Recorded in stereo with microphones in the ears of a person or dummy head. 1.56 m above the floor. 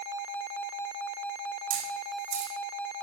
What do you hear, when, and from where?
1.7 s a camera shutter: 75° right (ahead or behind), 5.5 m